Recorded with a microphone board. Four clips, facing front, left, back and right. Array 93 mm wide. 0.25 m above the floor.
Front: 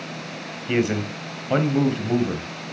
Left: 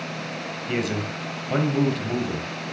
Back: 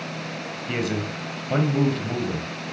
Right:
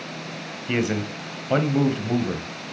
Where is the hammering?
No hammering in this recording.